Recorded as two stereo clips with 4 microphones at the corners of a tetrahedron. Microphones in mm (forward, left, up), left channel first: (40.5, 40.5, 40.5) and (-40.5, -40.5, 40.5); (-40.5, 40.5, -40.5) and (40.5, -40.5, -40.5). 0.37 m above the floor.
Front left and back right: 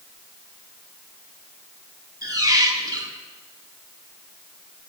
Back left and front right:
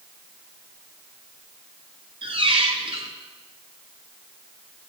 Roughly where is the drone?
No drone in this recording.